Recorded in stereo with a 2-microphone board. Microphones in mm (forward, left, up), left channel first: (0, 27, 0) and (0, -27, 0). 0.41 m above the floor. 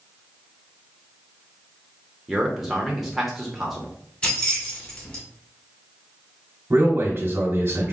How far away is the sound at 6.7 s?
About 1.3 m.